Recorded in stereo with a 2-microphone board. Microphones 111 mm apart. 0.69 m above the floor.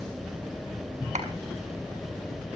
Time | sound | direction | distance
1.1 | a clap | 80° right | 6 m